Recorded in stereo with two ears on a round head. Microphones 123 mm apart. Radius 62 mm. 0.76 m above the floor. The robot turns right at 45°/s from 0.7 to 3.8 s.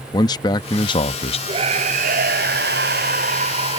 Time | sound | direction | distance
0.1 | a man speaking | 40° left | ?
1.5 | a scream | 140° right | ?